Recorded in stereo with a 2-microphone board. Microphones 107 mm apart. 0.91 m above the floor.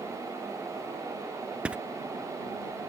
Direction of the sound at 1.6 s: 10° right (ahead or behind).